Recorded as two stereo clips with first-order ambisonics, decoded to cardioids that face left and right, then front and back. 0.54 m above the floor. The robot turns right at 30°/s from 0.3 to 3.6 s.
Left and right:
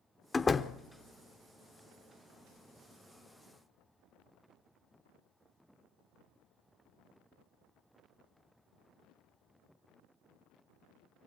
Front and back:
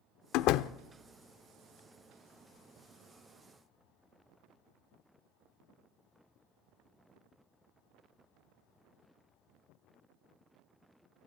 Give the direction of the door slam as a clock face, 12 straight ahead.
12 o'clock.